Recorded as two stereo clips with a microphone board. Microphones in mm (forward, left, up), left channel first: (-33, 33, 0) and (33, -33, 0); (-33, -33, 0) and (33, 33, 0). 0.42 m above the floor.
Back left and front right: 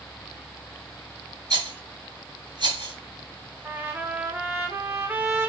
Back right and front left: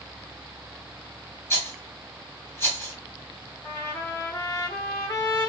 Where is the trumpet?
90° right, 1.3 m.